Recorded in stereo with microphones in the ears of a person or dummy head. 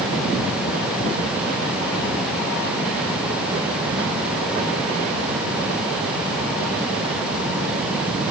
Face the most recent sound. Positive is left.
No sound to turn to.